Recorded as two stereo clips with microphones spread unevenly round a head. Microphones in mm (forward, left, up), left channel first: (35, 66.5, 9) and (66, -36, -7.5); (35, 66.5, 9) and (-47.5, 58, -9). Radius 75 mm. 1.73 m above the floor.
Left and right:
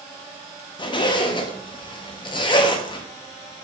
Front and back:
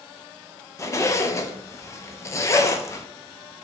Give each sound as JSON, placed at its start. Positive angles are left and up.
{"t": 0.8, "sound": "a zipper", "azimuth_deg": 60, "distance_m": 0.5}